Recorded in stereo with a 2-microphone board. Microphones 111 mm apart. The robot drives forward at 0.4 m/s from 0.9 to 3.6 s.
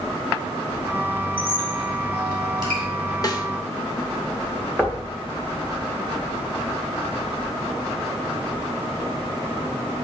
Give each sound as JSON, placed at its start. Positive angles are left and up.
{"t": 1.4, "sound": "a squeak", "side_deg": -50, "distance_m": 1.9}
{"t": 3.2, "sound": "a snare drum", "side_deg": 35, "distance_m": 0.8}
{"t": 4.8, "sound": "knocking", "side_deg": 10, "distance_m": 0.8}